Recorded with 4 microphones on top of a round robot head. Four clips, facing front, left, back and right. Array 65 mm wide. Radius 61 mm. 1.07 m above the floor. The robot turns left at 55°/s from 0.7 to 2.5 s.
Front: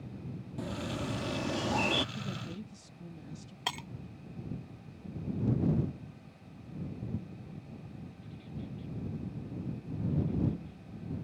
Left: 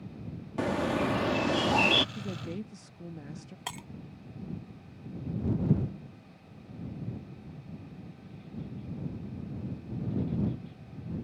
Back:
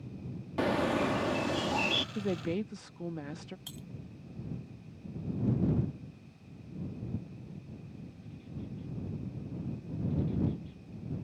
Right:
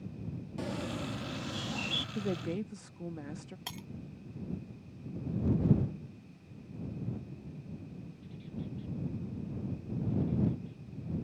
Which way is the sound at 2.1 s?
145° right.